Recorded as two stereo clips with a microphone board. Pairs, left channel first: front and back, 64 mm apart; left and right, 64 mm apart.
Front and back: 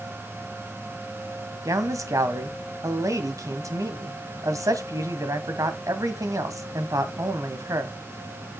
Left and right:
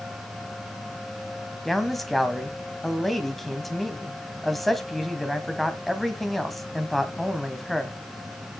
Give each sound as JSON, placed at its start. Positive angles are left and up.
{"t": 1.6, "sound": "a man speaking", "azimuth_deg": 175, "distance_m": 1.8}